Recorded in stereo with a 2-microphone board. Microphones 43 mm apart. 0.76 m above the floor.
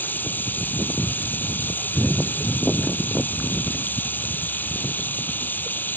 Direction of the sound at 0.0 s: 45° left (ahead or behind).